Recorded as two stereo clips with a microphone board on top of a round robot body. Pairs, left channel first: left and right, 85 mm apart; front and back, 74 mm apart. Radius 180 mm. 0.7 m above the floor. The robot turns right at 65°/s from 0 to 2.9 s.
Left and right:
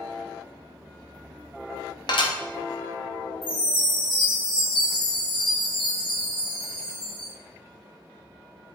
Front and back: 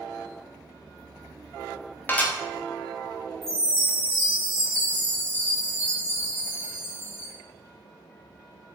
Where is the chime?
125° left, 1.5 m.